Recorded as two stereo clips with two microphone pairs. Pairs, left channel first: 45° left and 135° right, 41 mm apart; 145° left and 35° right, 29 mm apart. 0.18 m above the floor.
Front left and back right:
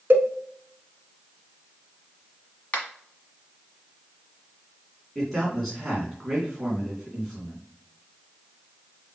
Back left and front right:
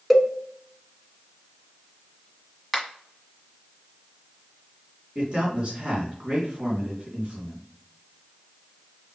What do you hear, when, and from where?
0.1 s a cowbell: 120° right, 1.0 m
2.7 s a finger snap: 55° left, 1.5 m
5.2 s a man speaking: 40° right, 2 m